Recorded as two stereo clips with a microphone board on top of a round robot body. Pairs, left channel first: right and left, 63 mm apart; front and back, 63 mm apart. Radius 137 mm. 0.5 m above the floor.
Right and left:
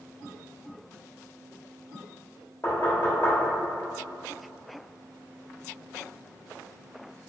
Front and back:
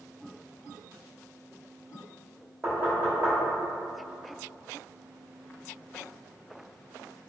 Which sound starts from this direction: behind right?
Knocking, at 2.6 s.